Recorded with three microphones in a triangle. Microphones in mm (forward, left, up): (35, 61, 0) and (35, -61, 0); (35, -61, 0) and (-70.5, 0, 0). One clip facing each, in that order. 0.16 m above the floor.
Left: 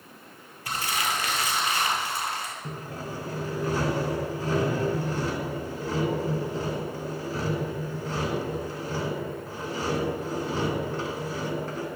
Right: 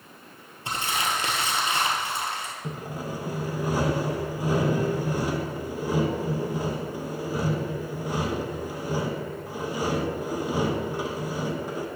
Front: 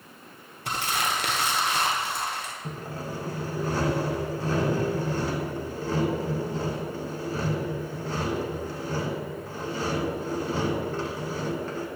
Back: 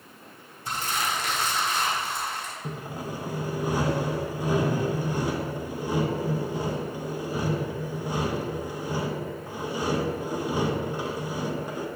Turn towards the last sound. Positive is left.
turn(degrees=-150)